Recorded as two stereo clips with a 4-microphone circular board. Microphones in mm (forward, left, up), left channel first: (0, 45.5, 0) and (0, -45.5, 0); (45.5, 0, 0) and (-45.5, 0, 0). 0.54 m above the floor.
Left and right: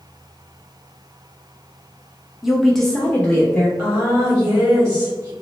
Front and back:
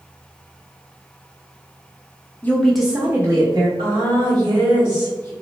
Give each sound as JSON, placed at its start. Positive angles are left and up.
{"t": 2.4, "sound": "a woman speaking", "azimuth_deg": -10, "distance_m": 0.7}
{"t": 3.8, "sound": "a woman speaking", "azimuth_deg": -145, "distance_m": 1.9}